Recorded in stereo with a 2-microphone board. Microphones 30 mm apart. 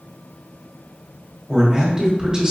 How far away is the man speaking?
About 1.5 m.